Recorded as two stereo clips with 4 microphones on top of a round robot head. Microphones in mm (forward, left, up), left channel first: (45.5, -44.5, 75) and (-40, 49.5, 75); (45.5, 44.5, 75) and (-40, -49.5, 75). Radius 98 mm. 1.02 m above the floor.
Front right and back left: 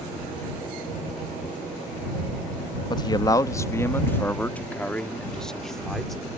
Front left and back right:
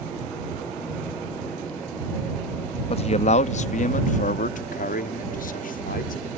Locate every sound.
2.9 s a man speaking: 5° left; by 6.3 s 40° left